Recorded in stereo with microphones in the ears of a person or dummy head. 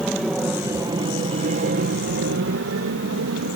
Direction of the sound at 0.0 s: Centre (ahead or behind).